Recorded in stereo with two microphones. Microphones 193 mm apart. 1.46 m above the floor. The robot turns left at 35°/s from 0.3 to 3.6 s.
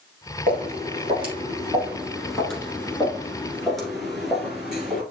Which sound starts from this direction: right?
Footsteps, at 0.5 s.